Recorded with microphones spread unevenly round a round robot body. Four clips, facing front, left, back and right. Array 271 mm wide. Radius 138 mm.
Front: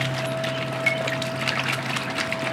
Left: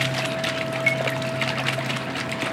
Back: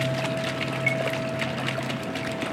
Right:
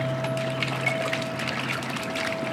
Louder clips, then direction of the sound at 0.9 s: Left 2 dB, front 1 dB; 140° left.